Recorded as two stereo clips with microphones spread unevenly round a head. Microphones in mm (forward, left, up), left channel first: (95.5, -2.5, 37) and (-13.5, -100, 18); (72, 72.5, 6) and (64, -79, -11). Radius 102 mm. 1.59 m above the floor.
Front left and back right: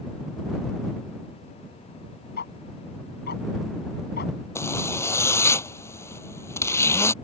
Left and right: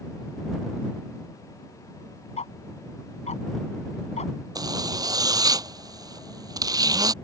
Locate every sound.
2.4 s ticking: 45° left
4.5 s a zipper: 30° right